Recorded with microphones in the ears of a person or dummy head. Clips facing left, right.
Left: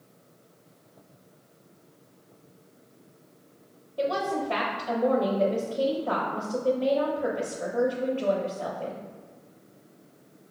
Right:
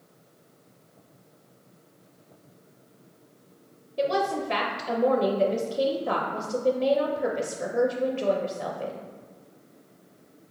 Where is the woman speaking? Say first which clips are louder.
Right 2 dB; 30° right (ahead or behind), 0.6 m.